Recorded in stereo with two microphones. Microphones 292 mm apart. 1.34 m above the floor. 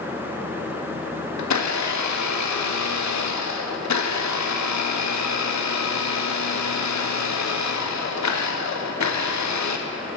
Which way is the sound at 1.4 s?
70° left (ahead or behind).